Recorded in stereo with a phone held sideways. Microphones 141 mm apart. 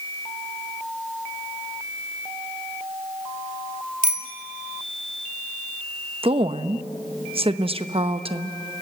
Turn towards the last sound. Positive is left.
turn(degrees=-40)  # may be behind; listen again after turning